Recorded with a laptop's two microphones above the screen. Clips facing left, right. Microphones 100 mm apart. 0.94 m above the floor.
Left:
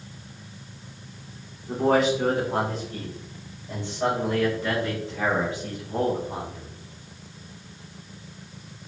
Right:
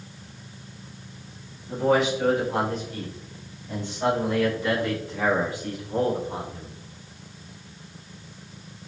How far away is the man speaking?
About 3.5 m.